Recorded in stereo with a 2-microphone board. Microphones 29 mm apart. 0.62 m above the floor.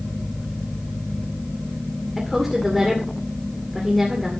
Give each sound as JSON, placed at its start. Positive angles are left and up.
{"t": 2.2, "sound": "a woman speaking", "side_deg": -5, "distance_m": 2.0}